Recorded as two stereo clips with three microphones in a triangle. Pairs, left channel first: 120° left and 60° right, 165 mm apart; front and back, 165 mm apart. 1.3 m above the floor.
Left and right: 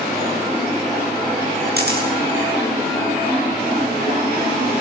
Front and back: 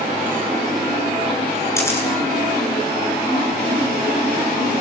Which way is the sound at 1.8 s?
75° right.